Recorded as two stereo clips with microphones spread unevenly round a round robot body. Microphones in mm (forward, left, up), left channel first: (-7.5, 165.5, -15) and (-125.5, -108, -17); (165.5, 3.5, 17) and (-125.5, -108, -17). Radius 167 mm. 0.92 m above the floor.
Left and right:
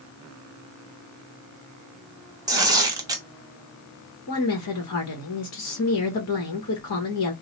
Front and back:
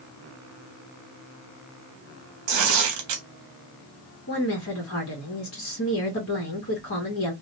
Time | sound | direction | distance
2.5 | tearing paper | 170° left | 1.0 m
4.3 | a woman speaking | 65° left | 1.0 m